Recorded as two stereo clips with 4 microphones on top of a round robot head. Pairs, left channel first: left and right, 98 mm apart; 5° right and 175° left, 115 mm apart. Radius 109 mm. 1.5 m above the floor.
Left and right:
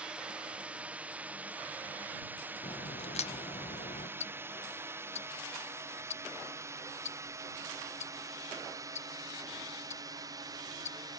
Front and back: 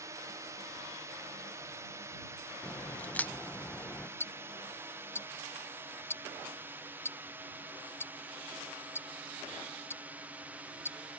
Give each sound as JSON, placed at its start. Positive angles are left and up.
{"t": 0.0, "sound": "a drone", "azimuth_deg": -160}
{"t": 2.6, "sound": "a crack", "azimuth_deg": 75}
{"t": 4.2, "sound": "ticking", "azimuth_deg": 65}